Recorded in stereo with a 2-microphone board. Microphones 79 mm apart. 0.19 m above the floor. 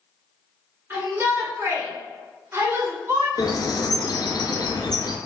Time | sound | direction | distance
0.9 | a shout | 25° right (ahead or behind) | 1.9 m
3.4 | a bird | 60° left (ahead or behind) | 0.5 m